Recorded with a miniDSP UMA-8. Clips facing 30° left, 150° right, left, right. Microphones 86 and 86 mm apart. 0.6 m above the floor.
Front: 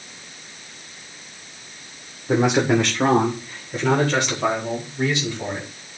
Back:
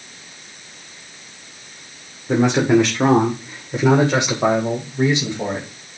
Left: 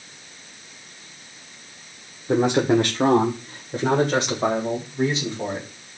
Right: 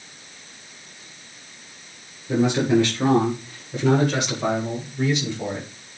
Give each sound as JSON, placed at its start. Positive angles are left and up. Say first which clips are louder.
{"t": 2.3, "sound": "a man speaking", "louder": "back 3 dB, left 1 dB", "azimuth_deg": 110, "distance_m": 1.9}